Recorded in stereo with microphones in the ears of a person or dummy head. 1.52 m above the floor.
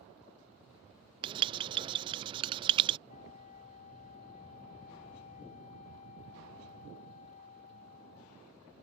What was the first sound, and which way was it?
Writing, 25° right (ahead or behind).